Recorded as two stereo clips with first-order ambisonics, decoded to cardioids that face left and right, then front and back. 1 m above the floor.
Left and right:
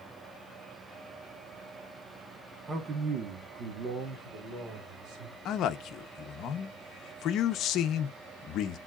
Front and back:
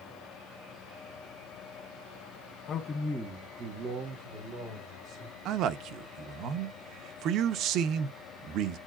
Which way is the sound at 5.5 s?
135° left.